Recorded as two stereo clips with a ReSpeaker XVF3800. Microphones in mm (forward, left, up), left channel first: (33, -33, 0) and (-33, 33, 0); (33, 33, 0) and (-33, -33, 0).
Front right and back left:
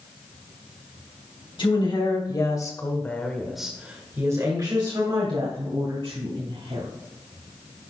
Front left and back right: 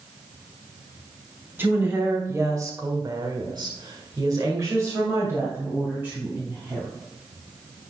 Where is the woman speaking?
70° right, 3 m; by 6.9 s 150° left, 4.5 m.